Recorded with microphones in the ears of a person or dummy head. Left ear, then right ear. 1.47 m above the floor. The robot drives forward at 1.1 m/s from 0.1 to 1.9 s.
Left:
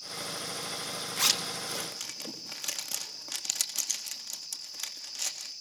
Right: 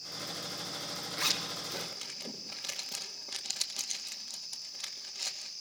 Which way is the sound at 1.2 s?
70° left (ahead or behind).